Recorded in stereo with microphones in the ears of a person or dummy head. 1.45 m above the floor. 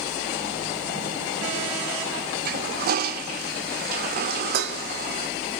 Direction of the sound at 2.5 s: 50° right (ahead or behind).